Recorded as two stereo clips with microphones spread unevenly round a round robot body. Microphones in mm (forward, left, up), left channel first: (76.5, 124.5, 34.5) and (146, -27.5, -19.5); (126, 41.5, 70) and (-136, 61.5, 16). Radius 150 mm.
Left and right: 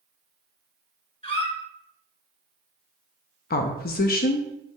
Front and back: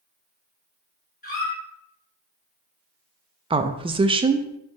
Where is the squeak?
55° left, 1.8 m.